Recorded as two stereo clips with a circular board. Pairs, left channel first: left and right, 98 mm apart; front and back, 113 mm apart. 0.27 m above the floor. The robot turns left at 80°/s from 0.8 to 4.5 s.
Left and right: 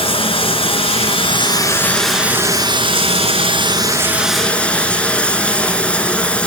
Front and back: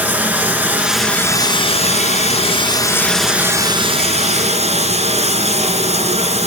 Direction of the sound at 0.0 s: 105° left.